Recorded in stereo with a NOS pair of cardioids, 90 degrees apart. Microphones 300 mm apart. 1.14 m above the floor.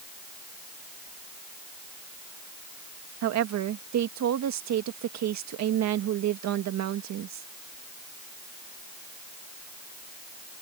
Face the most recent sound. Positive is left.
turn(degrees=-70)